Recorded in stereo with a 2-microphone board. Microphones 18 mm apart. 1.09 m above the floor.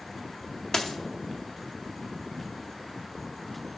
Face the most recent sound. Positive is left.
turn(degrees=35)  # may be behind; listen again after turning